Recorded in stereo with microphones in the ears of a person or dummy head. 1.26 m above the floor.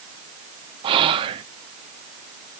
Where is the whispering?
25° right (ahead or behind), 0.7 m.